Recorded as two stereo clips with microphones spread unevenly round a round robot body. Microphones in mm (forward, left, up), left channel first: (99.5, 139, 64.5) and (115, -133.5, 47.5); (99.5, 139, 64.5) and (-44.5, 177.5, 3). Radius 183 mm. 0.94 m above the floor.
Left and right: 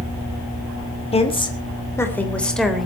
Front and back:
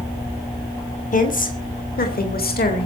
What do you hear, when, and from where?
1.1 s a woman speaking: 25° left, 3 m; by 2.9 s straight ahead, 3.5 m